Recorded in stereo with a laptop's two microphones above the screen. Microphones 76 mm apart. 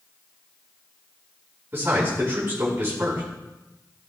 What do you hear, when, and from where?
1.7 s a man speaking: 30° right (ahead or behind), 4.5 m